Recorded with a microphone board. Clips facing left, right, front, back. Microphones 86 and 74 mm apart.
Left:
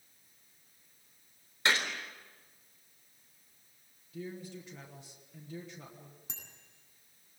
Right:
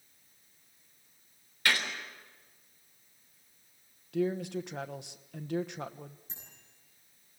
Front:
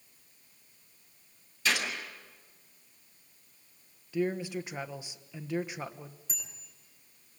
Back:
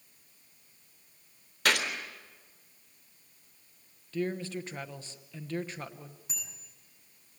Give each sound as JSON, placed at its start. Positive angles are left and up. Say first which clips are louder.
{"t": 1.6, "sound": "a gunshot", "louder": "even, back 2 dB", "azimuth_deg": 155, "distance_m": 3.5}
{"t": 4.1, "sound": "a man speaking", "louder": "right 12 dB, front 2 dB", "azimuth_deg": -75, "distance_m": 1.2}
{"t": 6.3, "sound": "a bicycle bell", "louder": "left 2 dB, even", "azimuth_deg": 95, "distance_m": 9.5}